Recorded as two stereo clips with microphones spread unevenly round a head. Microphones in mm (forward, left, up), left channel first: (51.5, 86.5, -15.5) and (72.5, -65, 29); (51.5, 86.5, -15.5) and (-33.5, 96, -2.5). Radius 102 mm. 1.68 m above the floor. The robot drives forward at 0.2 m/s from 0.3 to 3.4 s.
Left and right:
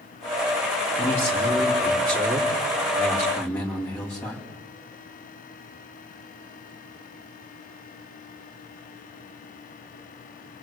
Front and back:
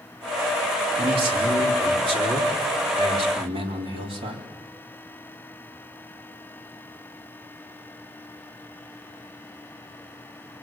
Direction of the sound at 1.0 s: Straight behind.